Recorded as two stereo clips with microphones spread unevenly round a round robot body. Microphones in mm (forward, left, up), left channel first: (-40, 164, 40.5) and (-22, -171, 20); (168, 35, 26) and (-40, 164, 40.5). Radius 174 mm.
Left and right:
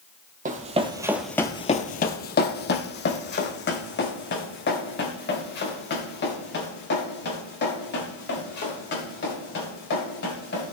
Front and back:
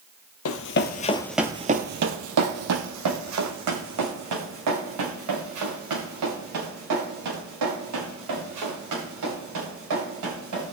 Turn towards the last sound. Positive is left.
turn(degrees=155)